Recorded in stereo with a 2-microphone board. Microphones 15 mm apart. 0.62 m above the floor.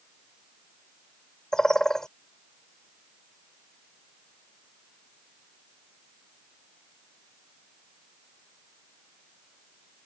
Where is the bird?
30° left (ahead or behind).